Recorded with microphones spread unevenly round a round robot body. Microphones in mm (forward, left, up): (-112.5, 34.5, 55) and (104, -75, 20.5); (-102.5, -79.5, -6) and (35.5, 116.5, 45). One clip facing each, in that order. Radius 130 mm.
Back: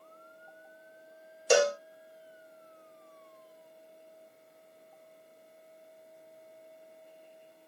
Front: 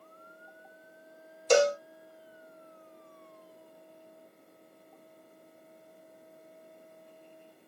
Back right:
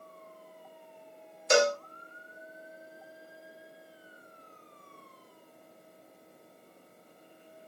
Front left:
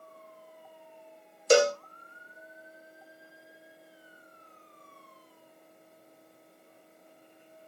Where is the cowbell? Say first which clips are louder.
Front 1 dB, front left 3 dB; 65° left, 1.0 m.